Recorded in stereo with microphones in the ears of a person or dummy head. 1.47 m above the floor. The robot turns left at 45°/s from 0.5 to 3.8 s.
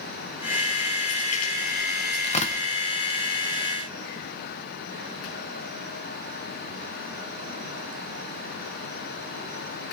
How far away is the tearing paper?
About 1.2 m.